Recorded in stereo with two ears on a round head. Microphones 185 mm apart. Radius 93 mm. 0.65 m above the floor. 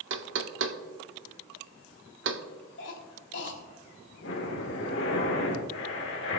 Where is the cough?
60° left (ahead or behind), 3 m.